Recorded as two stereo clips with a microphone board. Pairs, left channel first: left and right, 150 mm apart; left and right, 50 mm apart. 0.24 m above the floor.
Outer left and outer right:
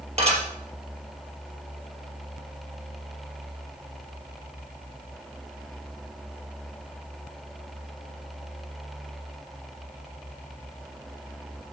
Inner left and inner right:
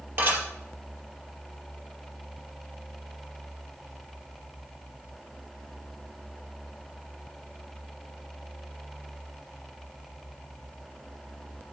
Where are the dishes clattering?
45° right (ahead or behind), 4 m.